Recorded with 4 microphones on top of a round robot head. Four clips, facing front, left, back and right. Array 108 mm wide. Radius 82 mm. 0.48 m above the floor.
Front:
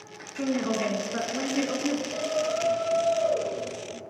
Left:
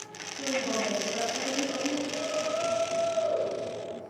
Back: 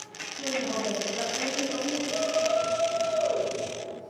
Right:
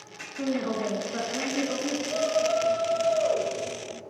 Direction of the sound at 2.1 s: 105° right.